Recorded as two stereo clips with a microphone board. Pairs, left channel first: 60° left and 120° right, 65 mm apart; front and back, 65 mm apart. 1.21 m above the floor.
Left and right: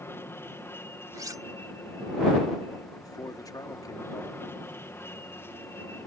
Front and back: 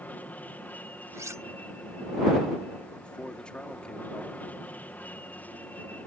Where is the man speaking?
75° left.